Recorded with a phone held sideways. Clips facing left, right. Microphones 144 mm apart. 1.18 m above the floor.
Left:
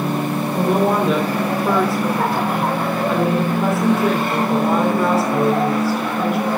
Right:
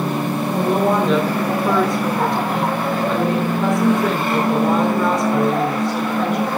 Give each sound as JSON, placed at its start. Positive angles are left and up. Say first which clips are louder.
{"t": 0.6, "sound": "a woman speaking", "louder": "even", "side_deg": 5, "distance_m": 3.5}